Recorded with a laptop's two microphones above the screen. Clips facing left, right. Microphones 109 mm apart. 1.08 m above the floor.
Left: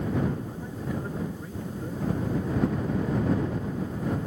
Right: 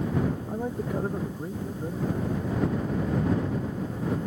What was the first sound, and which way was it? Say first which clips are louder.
A man speaking: right 4 dB; 55° right (ahead or behind).